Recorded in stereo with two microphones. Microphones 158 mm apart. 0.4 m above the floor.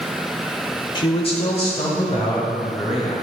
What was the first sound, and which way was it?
A man speaking, 30° left (ahead or behind).